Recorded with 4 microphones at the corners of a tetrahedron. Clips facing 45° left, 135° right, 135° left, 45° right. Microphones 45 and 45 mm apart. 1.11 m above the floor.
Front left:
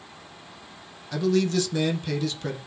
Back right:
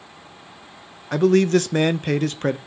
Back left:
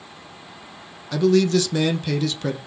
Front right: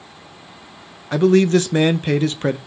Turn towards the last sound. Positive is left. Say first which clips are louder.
# back right 7 dB, front right 4 dB
turn(degrees=-95)